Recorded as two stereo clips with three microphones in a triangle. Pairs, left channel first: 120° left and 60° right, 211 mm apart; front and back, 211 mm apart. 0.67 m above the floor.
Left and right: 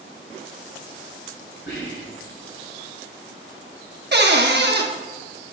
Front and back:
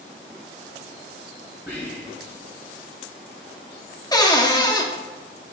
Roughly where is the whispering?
Left.